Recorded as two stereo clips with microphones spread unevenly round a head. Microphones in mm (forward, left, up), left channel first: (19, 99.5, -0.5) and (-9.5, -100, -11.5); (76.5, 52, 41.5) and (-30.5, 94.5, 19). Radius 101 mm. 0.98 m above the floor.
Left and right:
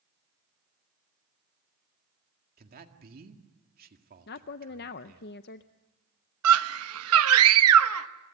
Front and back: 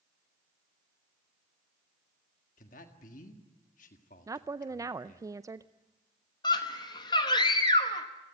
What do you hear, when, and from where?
2.6 s a man speaking: 50° right, 1.9 m
4.3 s a woman speaking: 115° left, 0.5 m
6.4 s a scream: 90° right, 1.0 m